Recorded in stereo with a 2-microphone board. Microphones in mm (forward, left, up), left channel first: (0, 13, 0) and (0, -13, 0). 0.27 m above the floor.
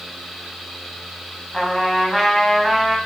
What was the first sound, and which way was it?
A trumpet, centre (ahead or behind).